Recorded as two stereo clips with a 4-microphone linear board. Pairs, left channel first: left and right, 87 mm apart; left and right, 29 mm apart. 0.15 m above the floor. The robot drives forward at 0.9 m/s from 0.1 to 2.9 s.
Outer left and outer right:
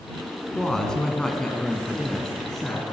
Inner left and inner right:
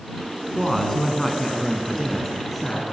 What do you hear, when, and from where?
0.6 s a woman speaking: 5° left (ahead or behind), 1.4 m